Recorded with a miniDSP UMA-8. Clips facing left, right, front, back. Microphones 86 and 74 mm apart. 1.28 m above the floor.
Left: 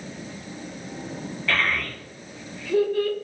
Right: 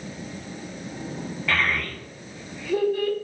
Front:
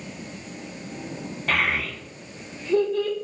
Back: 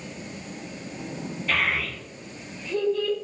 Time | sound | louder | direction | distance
1.5 | a child speaking | even, front 2 dB | 5° right | 0.7 m